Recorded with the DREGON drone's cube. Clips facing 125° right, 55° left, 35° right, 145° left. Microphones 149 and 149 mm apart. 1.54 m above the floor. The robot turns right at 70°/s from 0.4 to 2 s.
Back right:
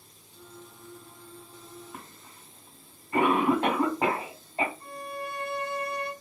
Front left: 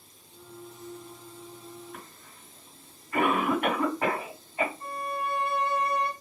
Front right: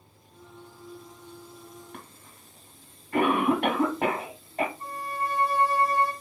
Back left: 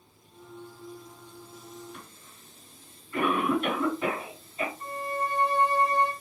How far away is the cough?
About 2.0 m.